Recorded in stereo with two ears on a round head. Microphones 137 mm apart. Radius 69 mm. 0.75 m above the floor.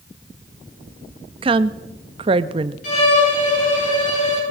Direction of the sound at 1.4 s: 35° right (ahead or behind).